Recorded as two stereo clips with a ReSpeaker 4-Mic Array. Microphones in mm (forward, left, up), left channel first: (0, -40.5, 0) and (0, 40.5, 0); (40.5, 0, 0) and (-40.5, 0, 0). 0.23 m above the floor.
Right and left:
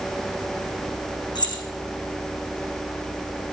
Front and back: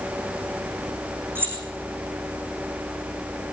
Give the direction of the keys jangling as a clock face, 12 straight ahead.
4 o'clock.